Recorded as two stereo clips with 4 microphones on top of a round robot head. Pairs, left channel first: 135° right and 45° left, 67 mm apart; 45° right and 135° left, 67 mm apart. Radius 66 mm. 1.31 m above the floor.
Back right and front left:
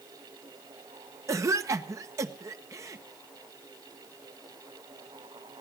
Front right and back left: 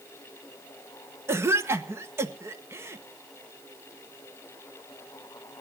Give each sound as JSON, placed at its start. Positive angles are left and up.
{"t": 1.3, "sound": "a cough", "azimuth_deg": 85, "distance_m": 1.4}